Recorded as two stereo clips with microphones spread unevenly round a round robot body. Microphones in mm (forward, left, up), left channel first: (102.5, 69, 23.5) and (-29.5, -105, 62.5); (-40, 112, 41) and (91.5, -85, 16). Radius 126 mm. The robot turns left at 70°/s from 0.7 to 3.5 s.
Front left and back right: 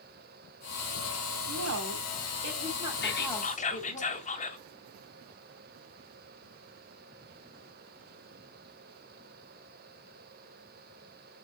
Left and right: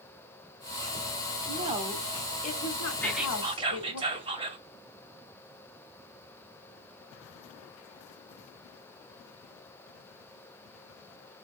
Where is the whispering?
40° left, 1.6 m; by 4.6 s 5° left, 1.6 m.